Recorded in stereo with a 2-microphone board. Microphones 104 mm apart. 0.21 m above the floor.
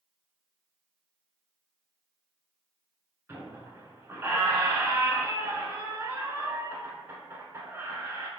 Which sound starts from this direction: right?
A squeak, at 3.3 s.